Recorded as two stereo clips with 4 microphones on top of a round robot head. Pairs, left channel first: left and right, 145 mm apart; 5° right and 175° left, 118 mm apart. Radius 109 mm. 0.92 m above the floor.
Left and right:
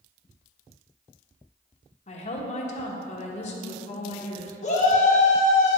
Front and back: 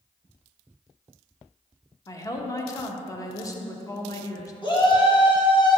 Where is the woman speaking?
55° left, 1.1 m.